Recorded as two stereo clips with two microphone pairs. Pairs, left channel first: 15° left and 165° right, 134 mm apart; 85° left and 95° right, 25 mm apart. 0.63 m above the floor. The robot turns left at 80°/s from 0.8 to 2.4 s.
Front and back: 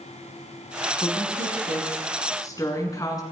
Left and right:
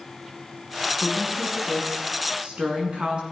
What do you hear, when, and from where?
1.0 s a woman speaking: 65° left, 6 m; by 3.2 s 45° right, 6 m